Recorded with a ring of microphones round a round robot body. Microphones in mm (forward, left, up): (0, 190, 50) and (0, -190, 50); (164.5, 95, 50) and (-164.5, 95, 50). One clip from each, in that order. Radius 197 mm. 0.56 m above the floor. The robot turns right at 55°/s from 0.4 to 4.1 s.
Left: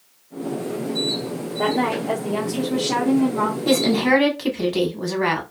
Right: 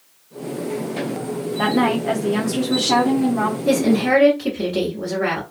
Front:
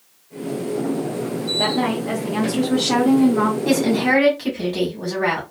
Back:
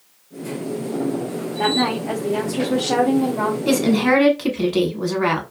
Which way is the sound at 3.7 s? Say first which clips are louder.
Even, back 3 dB; 110° left.